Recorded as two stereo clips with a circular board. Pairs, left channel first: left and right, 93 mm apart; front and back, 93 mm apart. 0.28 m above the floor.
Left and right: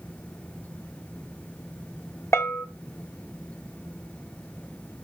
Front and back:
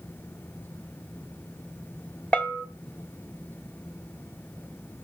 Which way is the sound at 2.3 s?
60° left.